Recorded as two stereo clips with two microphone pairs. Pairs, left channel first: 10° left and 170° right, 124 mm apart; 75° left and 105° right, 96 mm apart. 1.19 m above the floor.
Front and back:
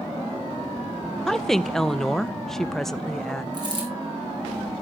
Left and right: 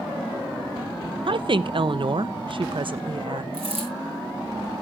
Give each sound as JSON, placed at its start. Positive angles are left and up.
{"t": 1.3, "sound": "a woman speaking", "azimuth_deg": -80, "distance_m": 0.7}
{"t": 3.5, "sound": "a dropped coin", "azimuth_deg": -120, "distance_m": 4.5}